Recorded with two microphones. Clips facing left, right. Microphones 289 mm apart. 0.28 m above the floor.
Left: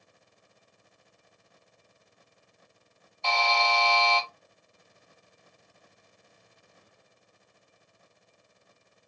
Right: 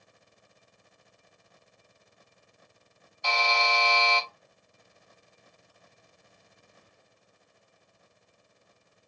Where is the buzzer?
15° right (ahead or behind), 1.2 m.